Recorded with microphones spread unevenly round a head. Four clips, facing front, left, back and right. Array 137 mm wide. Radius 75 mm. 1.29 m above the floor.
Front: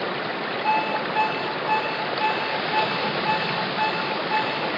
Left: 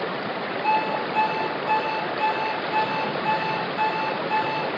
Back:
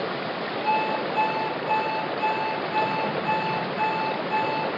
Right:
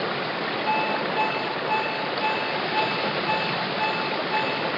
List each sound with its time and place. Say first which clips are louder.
0.6 s an alarm clock: left 3 dB, front 1 dB; 115° left, 7.5 m